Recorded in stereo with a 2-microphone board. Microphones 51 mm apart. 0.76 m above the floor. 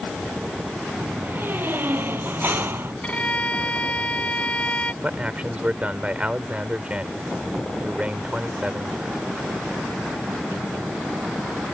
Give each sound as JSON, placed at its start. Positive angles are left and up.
{"t": 1.0, "sound": "a door slam", "side_deg": -40}
{"t": 3.0, "sound": "a violin", "side_deg": 25}
{"t": 5.0, "sound": "a man speaking", "side_deg": -25}